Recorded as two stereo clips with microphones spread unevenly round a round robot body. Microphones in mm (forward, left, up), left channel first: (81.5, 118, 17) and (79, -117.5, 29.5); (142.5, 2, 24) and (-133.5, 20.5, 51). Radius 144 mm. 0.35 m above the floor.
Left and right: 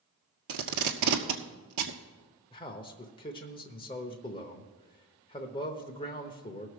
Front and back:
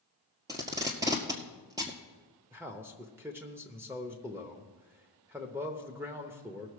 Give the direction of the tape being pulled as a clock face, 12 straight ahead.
4 o'clock.